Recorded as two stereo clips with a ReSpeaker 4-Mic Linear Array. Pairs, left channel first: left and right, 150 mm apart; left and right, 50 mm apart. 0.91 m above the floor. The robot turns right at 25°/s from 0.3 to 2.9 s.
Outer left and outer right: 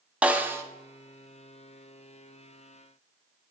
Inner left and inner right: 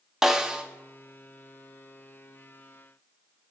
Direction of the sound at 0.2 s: 10° right (ahead or behind).